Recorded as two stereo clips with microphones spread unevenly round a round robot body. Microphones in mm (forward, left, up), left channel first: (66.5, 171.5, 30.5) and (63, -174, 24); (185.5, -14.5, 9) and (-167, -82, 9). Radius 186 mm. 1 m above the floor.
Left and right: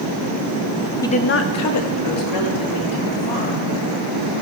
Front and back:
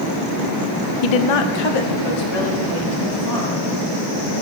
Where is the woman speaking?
5° left, 0.6 m; by 4.3 s 60° left, 4.5 m.